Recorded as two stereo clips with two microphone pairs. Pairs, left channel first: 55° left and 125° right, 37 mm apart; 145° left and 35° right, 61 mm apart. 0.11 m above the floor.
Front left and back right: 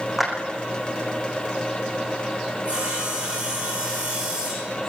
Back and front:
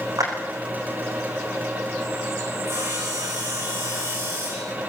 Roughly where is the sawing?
Right.